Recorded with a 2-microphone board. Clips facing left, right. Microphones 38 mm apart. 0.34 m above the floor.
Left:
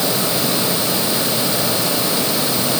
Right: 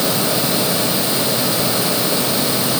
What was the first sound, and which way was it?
Only background noise.